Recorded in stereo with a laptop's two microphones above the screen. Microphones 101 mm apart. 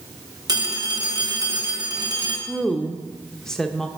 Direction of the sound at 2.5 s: 5° left (ahead or behind).